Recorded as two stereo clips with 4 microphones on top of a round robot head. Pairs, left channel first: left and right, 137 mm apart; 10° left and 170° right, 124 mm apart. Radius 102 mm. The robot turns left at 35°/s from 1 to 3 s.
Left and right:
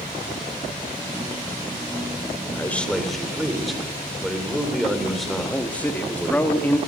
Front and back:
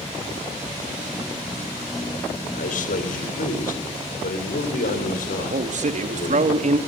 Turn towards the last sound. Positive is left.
turn(degrees=170)